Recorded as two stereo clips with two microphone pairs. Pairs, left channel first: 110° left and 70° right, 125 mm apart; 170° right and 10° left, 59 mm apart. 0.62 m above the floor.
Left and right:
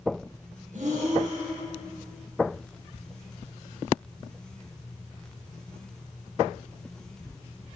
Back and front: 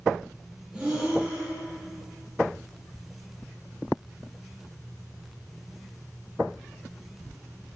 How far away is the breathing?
About 5.5 m.